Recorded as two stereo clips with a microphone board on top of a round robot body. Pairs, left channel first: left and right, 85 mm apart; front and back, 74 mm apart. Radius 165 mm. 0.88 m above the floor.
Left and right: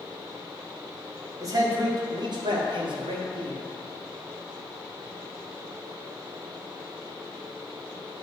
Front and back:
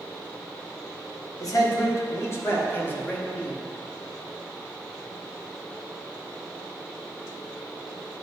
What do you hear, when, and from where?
1.4 s a man speaking: 40° right, 1.9 m; by 3.6 s 70° right, 2 m